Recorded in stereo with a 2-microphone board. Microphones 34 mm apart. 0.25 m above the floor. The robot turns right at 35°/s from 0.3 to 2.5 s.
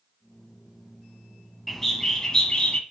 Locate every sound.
1.7 s a bird: centre (ahead or behind), 1.1 m; by 2.8 s 20° left (ahead or behind), 1.1 m